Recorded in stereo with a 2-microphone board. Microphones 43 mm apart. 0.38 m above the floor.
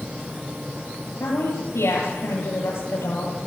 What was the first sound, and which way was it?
A woman speaking, 75° left (ahead or behind).